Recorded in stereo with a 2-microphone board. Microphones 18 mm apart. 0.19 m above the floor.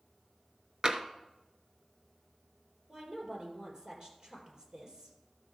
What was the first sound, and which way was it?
Tapping, 40° right (ahead or behind).